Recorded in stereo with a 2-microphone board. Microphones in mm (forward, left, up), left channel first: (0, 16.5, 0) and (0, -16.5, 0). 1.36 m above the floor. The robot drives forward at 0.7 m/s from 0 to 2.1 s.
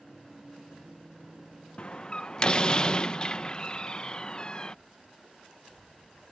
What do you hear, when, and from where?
1.8 s a door slam: 40° left (ahead or behind); by 4.8 s 30° left (ahead or behind)